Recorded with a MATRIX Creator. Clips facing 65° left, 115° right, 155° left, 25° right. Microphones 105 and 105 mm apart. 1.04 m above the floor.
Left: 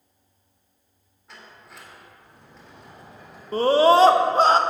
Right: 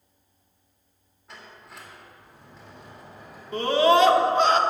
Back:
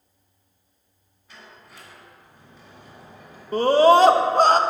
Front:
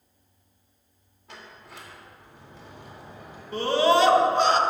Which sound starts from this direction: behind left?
A scream, at 3.5 s.